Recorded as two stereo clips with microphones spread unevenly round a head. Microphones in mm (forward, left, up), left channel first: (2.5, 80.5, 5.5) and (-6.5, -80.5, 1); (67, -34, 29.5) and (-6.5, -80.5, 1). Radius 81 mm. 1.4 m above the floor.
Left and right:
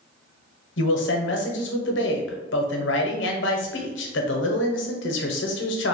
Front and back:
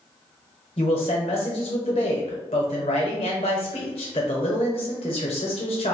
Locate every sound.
0.8 s a man speaking: 80° left, 0.8 m